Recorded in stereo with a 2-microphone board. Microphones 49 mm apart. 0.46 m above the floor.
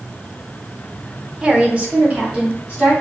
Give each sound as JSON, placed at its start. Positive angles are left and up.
{"t": 1.4, "sound": "a woman speaking", "side_deg": -20, "distance_m": 0.8}